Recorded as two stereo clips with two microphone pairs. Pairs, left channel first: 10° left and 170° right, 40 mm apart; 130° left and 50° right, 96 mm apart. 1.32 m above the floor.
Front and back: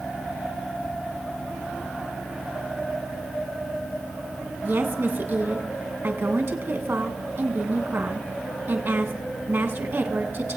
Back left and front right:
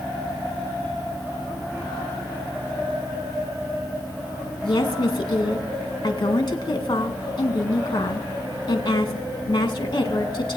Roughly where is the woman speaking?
Behind.